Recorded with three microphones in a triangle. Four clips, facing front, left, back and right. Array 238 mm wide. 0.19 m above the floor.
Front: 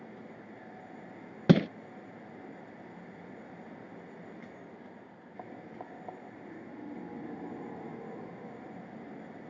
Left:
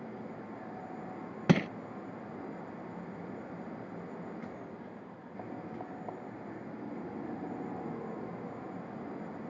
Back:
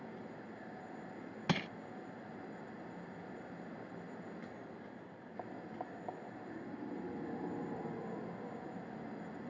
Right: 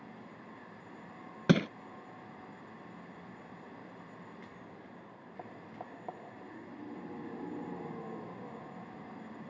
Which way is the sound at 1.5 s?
5° right.